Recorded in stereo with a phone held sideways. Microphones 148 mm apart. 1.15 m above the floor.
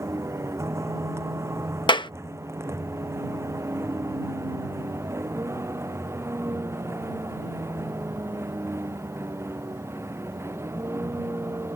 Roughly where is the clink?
No clink in this recording.